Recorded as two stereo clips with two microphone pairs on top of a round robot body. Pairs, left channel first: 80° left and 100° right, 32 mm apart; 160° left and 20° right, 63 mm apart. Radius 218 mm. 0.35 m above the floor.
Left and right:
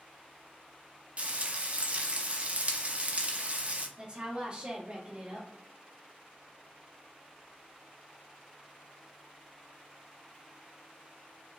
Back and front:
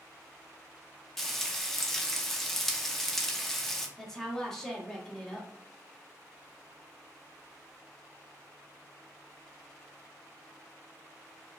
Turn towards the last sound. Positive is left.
turn(degrees=-110)